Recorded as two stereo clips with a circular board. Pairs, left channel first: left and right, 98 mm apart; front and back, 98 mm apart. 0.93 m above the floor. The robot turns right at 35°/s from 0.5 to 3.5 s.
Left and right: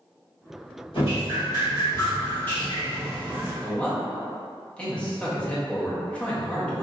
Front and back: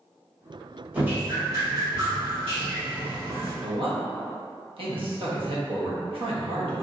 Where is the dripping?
105° left, 1.5 m; by 3.5 s 165° right, 1.5 m.